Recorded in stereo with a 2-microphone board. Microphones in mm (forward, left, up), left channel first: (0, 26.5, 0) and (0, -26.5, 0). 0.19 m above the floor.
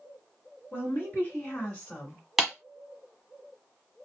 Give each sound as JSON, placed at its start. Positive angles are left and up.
{"t": 0.7, "sound": "a woman speaking", "side_deg": 40, "distance_m": 1.6}
{"t": 2.4, "sound": "a clap", "side_deg": 0, "distance_m": 1.2}